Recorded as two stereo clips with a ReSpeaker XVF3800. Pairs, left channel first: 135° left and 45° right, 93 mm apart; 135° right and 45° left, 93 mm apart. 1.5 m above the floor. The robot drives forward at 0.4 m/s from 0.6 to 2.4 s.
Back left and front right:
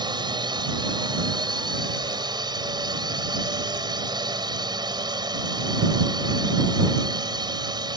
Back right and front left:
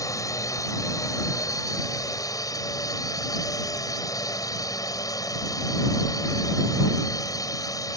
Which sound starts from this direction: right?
A drone, at 0.0 s.